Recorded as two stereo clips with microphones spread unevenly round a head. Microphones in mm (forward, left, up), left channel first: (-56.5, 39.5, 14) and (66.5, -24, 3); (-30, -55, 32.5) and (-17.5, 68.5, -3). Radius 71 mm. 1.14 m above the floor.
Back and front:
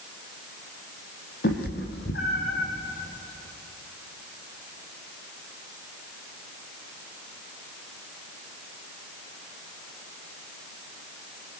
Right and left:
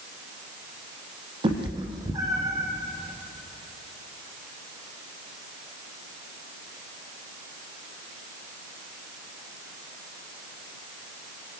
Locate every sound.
1.4 s a cat meowing: 140° left, 4 m; by 2.7 s 155° left, 5 m